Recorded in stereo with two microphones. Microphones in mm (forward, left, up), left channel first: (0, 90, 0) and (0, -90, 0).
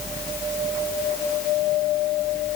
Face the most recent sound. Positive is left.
No sound to turn to.